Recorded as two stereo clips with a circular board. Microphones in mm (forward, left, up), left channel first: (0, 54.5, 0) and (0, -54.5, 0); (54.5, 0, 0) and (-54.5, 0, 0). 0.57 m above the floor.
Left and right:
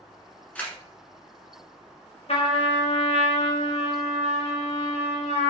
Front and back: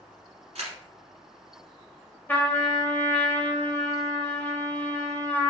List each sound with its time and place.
0.6 s a camera shutter: 165° left, 1.6 m
2.3 s a trumpet: 75° left, 0.8 m